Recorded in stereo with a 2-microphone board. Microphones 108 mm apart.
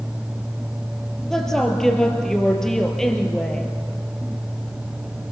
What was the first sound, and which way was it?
A woman speaking, 5° left (ahead or behind).